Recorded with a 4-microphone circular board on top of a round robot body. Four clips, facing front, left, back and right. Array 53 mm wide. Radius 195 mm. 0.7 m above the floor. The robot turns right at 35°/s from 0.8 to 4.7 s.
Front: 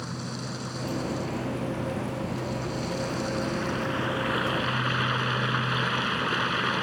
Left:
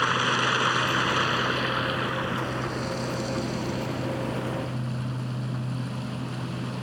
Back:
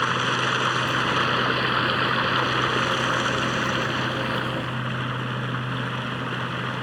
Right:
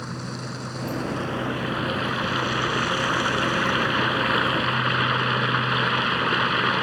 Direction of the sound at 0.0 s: 145° left.